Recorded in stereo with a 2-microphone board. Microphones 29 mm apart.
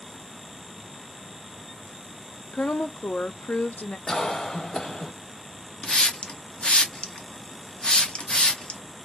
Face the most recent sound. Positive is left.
turn(degrees=35)  # may be behind; listen again after turning